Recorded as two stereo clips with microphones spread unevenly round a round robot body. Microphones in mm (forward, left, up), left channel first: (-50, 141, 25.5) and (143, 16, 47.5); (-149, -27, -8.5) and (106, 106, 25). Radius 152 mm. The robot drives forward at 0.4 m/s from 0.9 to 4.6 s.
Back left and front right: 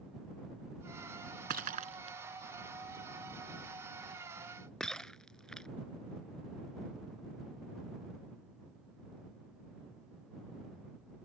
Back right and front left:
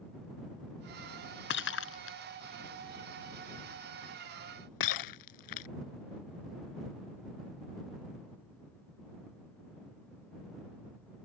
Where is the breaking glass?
95° right; by 5.7 s 125° right.